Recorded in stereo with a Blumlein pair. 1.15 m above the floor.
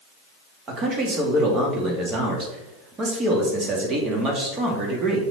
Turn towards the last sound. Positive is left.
turn(degrees=-25)